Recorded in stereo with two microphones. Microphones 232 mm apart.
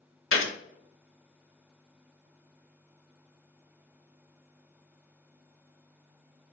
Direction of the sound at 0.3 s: 65° left (ahead or behind).